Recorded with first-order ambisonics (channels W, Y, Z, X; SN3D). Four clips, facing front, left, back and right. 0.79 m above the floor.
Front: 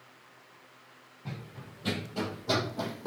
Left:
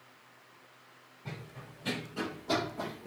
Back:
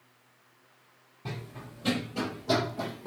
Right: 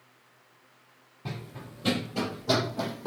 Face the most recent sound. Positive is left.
turn(degrees=-65)